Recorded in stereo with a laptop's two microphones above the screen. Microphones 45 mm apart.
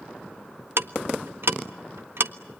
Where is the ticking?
65° right (ahead or behind), 0.8 m.